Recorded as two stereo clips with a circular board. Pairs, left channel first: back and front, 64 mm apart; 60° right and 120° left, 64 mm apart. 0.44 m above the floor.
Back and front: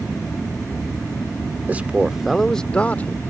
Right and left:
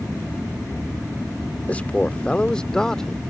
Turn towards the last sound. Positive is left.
turn(degrees=-140)